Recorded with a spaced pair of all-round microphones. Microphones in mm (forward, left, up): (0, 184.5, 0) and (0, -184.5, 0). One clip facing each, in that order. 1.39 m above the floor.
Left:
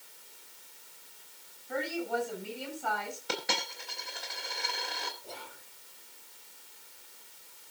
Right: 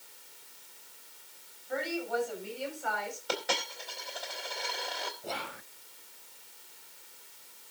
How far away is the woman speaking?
About 8.5 m.